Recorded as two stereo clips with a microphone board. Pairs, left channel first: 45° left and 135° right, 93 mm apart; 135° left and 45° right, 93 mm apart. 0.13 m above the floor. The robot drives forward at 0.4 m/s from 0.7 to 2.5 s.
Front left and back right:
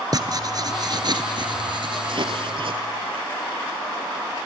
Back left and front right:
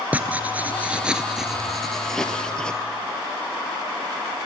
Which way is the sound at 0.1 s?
115° right.